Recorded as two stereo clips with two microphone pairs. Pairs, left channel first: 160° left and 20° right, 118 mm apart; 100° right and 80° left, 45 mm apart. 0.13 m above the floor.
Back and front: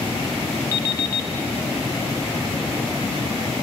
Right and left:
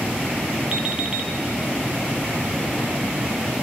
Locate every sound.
0.7 s an alarm clock: 130° left, 0.8 m